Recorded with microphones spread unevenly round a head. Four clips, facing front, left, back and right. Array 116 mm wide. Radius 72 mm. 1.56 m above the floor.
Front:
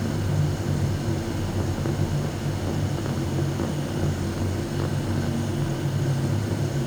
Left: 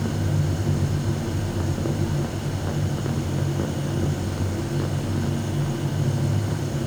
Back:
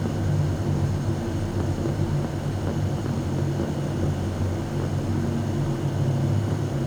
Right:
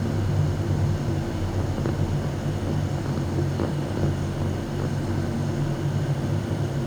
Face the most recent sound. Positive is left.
No sound to turn to.